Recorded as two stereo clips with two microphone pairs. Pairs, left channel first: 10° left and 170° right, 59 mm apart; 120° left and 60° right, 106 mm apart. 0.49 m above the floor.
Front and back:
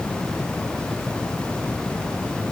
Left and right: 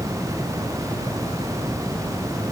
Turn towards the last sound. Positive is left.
No sound to turn to.